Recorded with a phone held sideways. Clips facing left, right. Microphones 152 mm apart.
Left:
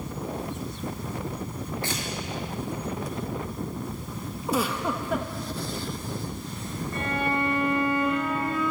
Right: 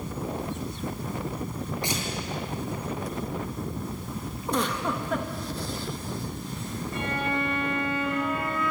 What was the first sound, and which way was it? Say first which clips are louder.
Tearing paper: right 2 dB; 20° right (ahead or behind).